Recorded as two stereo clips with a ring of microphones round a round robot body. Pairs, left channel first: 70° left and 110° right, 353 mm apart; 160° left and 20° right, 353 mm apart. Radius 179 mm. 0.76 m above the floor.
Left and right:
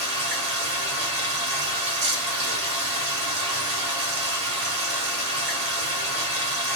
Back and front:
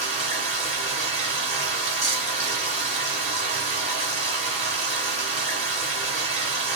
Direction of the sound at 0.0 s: 95° right.